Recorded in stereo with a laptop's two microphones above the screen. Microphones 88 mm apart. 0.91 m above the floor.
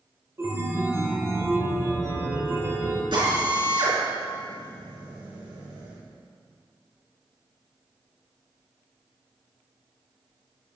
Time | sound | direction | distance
0.4 | a chime | 30° right (ahead or behind) | 4.5 m
3.1 | a drill | 65° right (ahead or behind) | 4.5 m